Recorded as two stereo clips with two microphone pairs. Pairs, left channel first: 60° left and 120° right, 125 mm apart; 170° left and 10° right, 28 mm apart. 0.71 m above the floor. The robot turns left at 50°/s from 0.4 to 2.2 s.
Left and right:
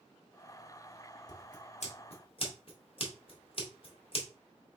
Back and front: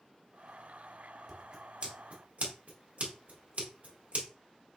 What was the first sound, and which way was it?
Scissors, 65° left.